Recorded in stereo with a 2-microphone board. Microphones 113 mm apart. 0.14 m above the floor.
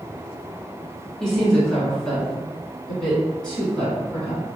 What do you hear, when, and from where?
1.2 s a woman speaking: 5° left (ahead or behind), 2.0 m; by 4.5 s 10° left (ahead or behind), 1.7 m